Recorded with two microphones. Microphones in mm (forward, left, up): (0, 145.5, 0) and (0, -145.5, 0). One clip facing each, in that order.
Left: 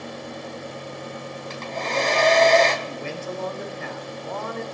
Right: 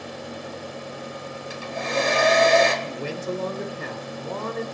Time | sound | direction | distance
1.5 | a hair dryer | 10° right (ahead or behind) | 2.5 m
2.8 | a man speaking | 45° right (ahead or behind) | 1.5 m